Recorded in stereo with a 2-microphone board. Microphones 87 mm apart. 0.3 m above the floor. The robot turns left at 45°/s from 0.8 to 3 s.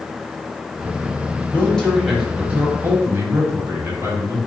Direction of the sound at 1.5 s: 25° left.